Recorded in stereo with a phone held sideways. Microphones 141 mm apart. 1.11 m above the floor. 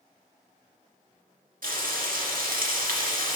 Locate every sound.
1.6 s frying: 75° right (ahead or behind), 1.5 m